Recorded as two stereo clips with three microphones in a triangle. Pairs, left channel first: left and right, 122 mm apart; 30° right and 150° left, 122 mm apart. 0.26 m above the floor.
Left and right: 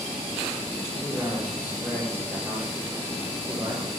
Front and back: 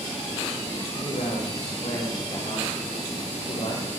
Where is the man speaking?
15° right, 7.5 m; by 3.9 s 25° right, 7 m.